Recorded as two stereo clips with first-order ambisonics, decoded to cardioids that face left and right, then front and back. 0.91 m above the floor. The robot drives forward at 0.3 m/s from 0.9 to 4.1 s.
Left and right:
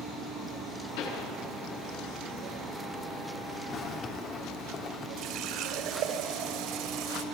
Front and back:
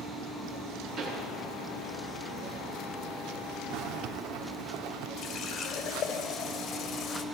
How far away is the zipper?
About 2.5 m.